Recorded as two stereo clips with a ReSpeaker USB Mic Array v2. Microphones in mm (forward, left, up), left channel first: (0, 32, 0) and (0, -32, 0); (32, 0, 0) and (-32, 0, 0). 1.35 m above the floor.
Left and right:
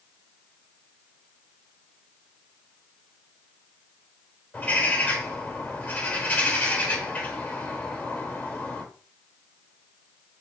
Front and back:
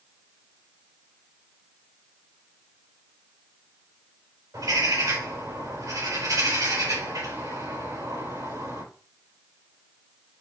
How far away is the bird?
About 3.5 m.